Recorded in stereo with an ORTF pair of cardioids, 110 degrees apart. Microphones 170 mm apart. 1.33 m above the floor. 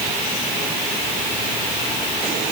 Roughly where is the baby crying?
No baby crying in this recording.